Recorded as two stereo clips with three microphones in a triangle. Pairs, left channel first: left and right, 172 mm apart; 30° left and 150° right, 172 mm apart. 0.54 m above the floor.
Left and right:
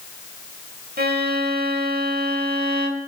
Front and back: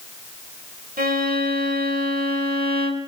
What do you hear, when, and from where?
1.0 s a violin: 115° right, 1.0 m